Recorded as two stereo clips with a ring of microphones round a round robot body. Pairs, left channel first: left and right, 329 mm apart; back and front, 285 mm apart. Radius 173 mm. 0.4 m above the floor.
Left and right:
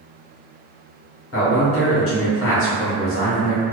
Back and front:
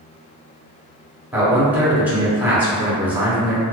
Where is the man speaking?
80° left, 1.1 m.